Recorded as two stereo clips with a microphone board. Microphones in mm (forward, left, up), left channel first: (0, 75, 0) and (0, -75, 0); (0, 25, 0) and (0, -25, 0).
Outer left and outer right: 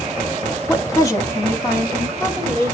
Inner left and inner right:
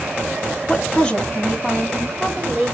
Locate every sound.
0.7 s a woman speaking: 20° left (ahead or behind), 0.5 m